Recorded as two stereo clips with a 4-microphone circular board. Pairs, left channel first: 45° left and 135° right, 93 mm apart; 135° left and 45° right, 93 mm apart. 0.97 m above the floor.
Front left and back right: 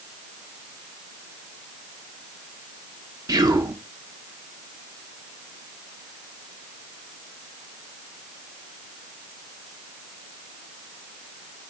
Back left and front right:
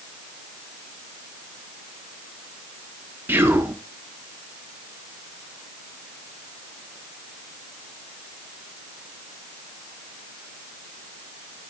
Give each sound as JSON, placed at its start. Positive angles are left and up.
{"t": 3.3, "sound": "whispering", "azimuth_deg": -105, "distance_m": 0.7}